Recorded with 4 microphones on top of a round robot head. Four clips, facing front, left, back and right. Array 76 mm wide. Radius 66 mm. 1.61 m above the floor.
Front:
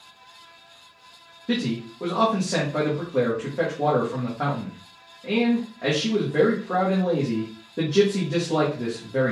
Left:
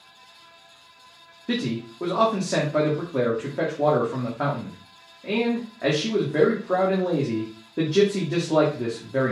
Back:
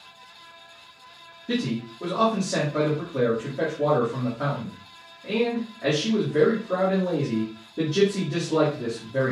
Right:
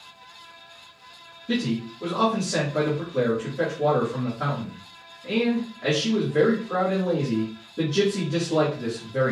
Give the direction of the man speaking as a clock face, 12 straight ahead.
10 o'clock.